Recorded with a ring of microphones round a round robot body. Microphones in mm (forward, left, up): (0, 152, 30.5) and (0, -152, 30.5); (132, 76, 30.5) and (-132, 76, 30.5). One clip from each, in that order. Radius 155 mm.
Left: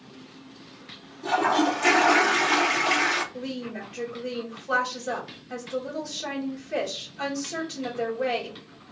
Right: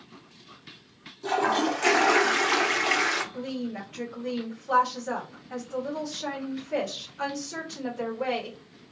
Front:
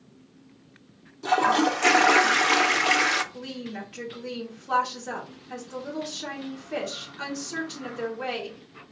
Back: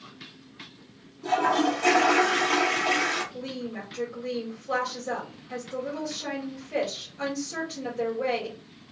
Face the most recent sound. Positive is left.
turn(degrees=0)